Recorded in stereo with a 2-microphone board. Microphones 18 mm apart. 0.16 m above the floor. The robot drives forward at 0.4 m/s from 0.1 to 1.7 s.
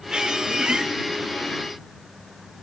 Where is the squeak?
55° right (ahead or behind), 2.5 m; by 0.9 s 60° right (ahead or behind), 2 m.